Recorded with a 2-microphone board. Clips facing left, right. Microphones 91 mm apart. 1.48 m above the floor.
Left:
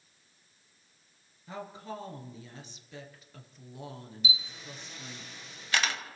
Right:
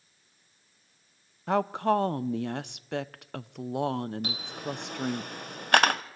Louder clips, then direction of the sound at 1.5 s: Right 16 dB; 65° right (ahead or behind).